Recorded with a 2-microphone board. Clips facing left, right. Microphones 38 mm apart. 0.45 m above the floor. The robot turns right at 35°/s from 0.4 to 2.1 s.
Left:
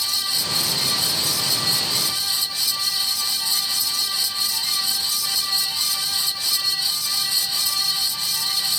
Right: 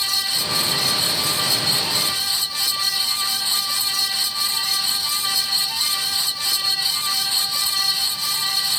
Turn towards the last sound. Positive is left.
No sound to turn to.